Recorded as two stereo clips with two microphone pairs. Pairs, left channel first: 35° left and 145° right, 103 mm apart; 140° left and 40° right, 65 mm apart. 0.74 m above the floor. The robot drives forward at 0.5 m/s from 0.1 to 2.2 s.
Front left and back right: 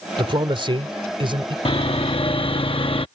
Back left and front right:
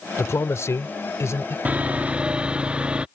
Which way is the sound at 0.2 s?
Straight behind.